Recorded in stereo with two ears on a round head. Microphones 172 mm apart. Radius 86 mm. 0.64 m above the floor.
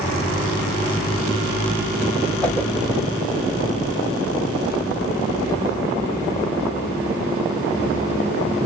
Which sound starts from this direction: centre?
A whoosh, at 2.4 s.